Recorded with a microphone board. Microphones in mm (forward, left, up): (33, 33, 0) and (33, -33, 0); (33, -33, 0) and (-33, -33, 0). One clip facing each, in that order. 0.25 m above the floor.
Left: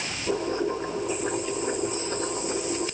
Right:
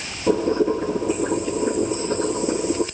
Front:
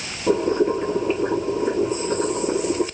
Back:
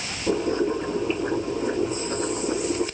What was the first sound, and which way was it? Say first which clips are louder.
Boiling: right 8 dB, front 4 dB; 70° right.